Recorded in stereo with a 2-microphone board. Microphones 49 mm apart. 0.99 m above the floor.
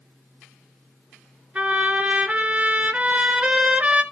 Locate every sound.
1.6 s a trumpet: 30° right (ahead or behind), 1.6 m